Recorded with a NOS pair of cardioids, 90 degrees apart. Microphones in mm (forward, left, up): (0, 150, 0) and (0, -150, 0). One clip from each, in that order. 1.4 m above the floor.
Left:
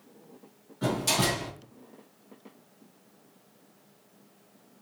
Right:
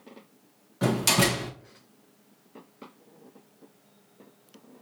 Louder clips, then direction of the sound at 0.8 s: Right 3 dB; 60° right.